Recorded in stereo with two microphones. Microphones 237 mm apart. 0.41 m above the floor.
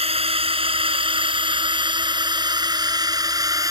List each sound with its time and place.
0.0 s a drone: 25° right (ahead or behind); by 3.7 s 15° right (ahead or behind)